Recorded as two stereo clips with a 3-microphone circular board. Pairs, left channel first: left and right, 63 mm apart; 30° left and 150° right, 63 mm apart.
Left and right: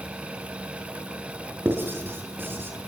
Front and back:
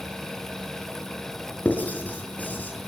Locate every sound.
1.6 s writing: 35° right, 6 m